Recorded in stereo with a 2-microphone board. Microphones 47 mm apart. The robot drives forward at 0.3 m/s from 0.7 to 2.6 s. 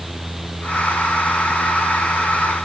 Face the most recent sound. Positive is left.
No sound to turn to.